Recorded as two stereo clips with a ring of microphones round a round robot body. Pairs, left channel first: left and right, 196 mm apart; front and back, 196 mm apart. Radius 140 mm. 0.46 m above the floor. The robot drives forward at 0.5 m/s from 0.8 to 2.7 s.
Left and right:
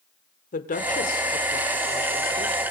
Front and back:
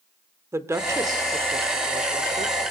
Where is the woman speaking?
110° left, 1.6 m; by 2.5 s 140° left, 2.0 m.